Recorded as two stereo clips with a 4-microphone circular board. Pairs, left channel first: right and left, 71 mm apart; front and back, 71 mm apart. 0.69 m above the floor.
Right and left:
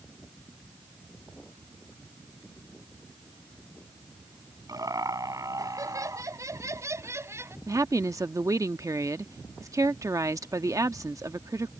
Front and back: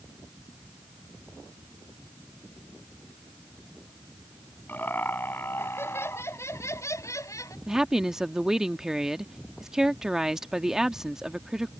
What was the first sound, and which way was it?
Laughter, 65° left.